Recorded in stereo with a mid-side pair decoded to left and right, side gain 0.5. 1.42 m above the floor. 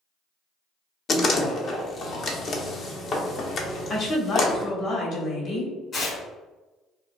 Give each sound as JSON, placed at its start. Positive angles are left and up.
{"t": 1.1, "sound": "a door slam", "azimuth_deg": 50, "distance_m": 0.7}
{"t": 3.9, "sound": "a woman speaking", "azimuth_deg": 55, "distance_m": 1.3}
{"t": 5.9, "sound": "tearing paper", "azimuth_deg": 50, "distance_m": 1.8}